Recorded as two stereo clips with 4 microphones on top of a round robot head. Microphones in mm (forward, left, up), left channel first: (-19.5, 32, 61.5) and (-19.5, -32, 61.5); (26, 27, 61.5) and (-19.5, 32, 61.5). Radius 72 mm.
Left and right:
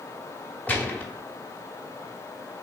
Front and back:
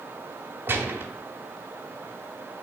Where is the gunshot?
155° left, 1.1 m.